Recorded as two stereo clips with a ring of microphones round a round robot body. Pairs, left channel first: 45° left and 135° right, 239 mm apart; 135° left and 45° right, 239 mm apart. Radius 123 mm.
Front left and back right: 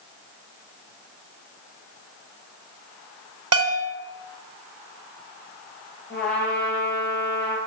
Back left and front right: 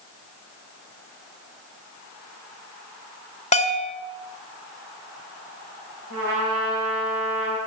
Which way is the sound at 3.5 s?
160° right.